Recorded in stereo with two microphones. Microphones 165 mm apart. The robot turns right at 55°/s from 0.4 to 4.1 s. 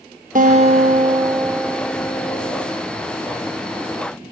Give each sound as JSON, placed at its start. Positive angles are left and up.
{"t": 0.3, "sound": "a guitar", "azimuth_deg": -65, "distance_m": 0.8}